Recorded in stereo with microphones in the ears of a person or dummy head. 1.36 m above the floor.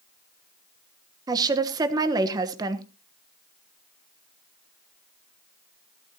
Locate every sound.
1.3 s a woman speaking: 20° right (ahead or behind), 1.2 m